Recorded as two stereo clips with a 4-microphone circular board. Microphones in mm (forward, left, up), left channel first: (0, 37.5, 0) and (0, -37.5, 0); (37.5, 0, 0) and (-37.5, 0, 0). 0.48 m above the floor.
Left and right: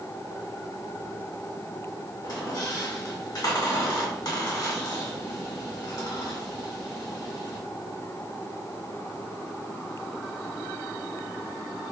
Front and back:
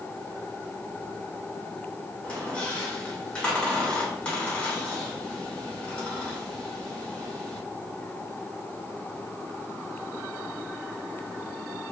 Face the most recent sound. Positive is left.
turn(degrees=75)